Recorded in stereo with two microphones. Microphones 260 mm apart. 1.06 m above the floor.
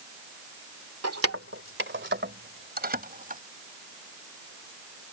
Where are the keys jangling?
65° right (ahead or behind); by 3.4 s 30° right (ahead or behind).